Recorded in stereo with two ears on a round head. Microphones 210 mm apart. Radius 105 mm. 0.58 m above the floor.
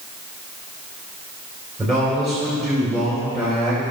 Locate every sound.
1.8 s a man speaking: centre (ahead or behind), 3 m